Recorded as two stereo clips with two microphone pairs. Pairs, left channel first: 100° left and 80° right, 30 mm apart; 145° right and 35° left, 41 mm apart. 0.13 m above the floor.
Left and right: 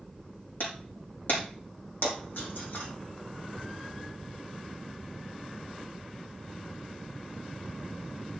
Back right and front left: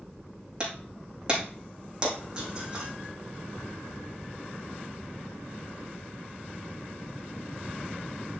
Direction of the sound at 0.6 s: 100° left.